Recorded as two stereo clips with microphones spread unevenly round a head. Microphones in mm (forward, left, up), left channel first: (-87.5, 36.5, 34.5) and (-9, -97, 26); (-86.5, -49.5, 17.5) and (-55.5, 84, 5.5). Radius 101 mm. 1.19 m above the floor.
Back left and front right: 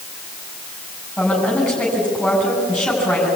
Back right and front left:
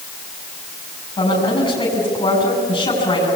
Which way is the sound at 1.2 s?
155° right.